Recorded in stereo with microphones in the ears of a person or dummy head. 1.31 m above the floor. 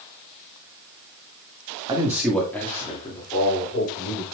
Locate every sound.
1.9 s a man speaking: 20° right (ahead or behind), 1.4 m; by 4.2 s 40° left (ahead or behind), 4 m